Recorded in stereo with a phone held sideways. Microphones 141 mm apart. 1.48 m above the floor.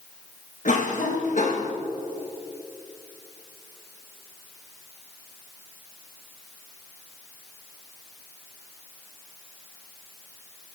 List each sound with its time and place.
0.7 s a cough: 65° left (ahead or behind), 2.0 m